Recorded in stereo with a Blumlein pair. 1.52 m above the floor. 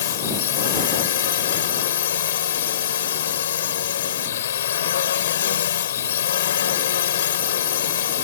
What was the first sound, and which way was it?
A drone, 65° left.